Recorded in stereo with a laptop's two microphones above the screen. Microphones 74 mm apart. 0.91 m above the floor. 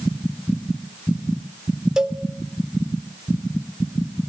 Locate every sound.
2.0 s a cowbell: 10° right (ahead or behind), 0.9 m